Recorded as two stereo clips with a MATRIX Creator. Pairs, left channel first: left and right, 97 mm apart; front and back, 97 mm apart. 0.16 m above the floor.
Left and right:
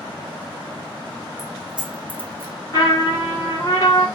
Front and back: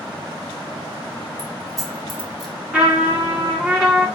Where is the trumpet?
100° left, 1.8 m.